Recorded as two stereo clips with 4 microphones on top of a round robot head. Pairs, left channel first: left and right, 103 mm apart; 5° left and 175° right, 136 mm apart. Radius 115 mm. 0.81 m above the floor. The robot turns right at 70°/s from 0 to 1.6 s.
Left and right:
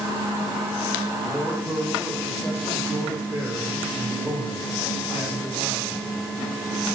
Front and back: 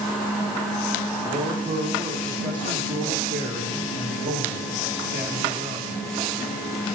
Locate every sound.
1.2 s a man speaking: 170° left, 1.9 m; by 6.1 s 165° right, 1.9 m